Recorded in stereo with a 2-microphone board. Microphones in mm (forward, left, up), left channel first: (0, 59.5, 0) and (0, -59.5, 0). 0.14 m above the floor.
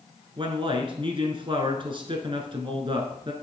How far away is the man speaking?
About 1.4 m.